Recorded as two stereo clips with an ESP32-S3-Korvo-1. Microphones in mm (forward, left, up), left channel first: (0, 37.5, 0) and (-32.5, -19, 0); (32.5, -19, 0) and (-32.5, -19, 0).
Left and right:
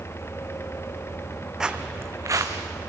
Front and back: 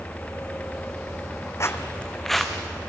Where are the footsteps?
40° right, 1.1 m; by 2.6 s 95° right, 2 m.